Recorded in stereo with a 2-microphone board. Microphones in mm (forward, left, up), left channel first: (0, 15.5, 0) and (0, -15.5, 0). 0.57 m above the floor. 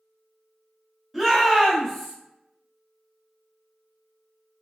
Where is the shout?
Centre (ahead or behind), 1.2 m; by 2.1 s 5° right (ahead or behind), 1.3 m.